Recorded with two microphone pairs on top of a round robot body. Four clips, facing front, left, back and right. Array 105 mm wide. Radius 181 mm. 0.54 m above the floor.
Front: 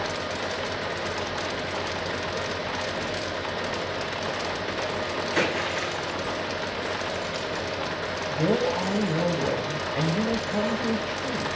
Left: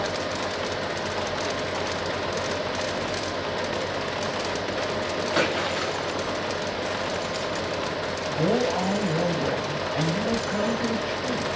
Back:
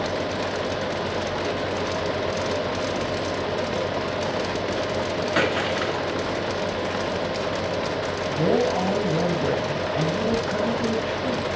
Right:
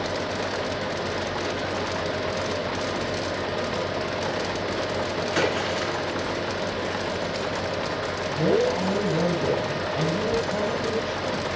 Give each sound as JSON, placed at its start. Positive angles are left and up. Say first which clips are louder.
{"t": 5.4, "sound": "a splash", "louder": "right 1 dB, back 3 dB", "azimuth_deg": 150, "distance_m": 8.0}
{"t": 8.3, "sound": "a man speaking", "louder": "right 2 dB, back 3 dB", "azimuth_deg": 145, "distance_m": 9.0}